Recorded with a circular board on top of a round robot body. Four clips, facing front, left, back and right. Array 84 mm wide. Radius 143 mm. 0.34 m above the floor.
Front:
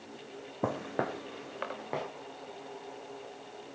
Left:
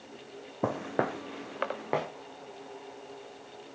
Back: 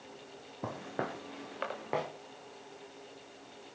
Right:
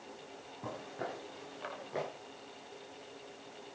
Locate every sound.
0.6 s footsteps: 60° left, 1.1 m; by 2.1 s 95° left, 3 m